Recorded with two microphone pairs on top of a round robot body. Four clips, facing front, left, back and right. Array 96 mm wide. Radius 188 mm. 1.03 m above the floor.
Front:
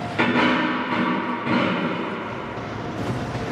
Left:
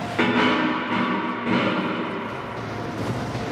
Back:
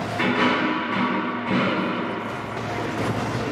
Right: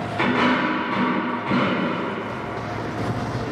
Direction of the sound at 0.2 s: 65° left.